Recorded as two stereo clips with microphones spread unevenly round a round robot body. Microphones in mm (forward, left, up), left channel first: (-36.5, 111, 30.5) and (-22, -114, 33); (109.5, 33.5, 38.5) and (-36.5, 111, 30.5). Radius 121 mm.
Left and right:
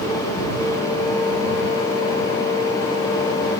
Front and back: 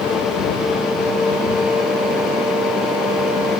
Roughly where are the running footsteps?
No running footsteps in this recording.